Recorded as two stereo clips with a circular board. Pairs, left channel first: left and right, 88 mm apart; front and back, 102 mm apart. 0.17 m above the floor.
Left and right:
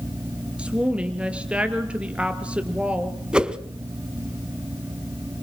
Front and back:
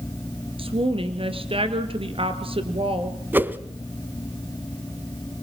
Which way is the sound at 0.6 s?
165° right.